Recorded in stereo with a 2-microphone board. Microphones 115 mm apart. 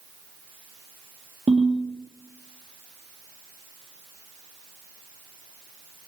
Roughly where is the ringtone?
Right.